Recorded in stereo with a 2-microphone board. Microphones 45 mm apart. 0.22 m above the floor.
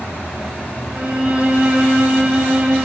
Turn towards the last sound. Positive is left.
turn(degrees=-30)  # may be behind; listen again after turning